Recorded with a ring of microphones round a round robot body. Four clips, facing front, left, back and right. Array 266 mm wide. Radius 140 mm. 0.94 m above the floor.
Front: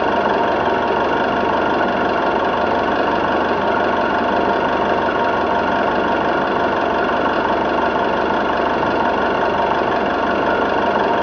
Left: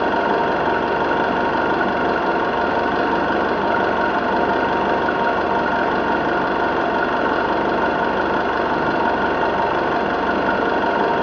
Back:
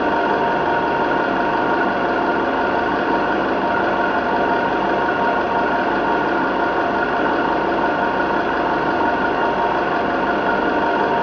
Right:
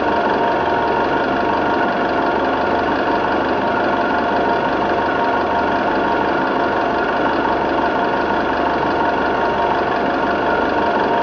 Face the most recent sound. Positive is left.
turn(degrees=-40)